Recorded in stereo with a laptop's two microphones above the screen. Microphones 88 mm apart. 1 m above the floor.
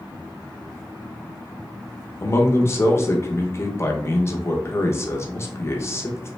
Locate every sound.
2.2 s a man speaking: 30° left (ahead or behind), 0.5 m